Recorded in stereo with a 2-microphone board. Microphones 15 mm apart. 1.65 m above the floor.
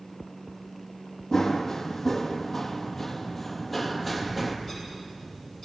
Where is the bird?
25° left (ahead or behind), 9.5 m.